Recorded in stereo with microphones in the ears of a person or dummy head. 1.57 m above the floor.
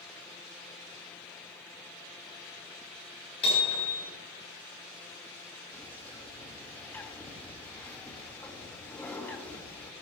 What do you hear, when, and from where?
3.4 s hammering: 35° left (ahead or behind), 7.5 m
5.7 s a bird: 15° left (ahead or behind), 1.7 m